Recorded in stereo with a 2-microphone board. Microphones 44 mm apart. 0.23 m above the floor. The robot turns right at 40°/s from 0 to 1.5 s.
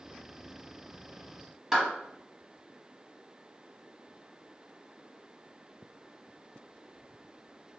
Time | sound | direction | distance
1.7 | a clap | 10° right (ahead or behind) | 1.3 m